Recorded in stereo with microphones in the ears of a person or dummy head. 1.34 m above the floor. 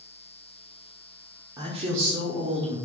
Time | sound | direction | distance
1.6 | a woman speaking | 20° right (ahead or behind) | 0.8 m